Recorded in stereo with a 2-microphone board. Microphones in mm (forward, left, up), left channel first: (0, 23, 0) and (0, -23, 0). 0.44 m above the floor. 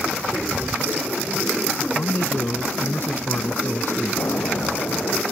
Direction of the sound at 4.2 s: 60° left (ahead or behind).